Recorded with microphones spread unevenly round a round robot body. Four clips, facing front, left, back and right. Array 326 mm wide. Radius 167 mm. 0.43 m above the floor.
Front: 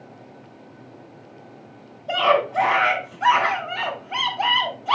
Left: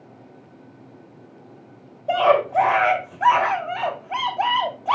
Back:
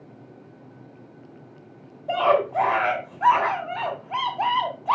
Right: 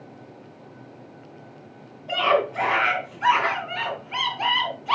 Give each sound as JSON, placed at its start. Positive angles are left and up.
{"t": 2.1, "sound": "a scream", "azimuth_deg": 120, "distance_m": 2.0}